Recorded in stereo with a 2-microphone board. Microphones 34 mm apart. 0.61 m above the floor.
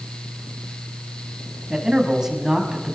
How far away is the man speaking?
About 5.5 m.